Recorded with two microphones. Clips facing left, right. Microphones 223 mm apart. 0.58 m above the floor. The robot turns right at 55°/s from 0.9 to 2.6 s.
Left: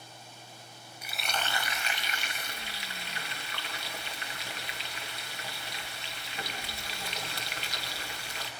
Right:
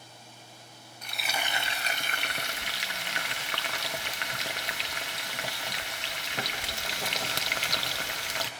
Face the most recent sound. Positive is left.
turn(degrees=-105)